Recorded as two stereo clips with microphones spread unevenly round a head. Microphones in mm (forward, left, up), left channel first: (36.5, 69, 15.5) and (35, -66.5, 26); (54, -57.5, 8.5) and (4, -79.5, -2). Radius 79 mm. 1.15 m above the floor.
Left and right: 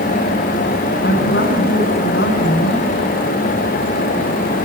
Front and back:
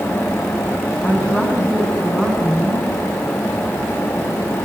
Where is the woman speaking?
100° left, 8.5 m.